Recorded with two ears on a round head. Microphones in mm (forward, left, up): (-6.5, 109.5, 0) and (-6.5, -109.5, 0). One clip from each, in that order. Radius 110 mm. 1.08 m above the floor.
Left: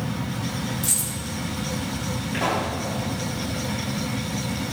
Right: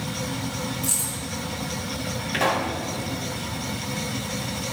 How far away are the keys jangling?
About 4.5 m.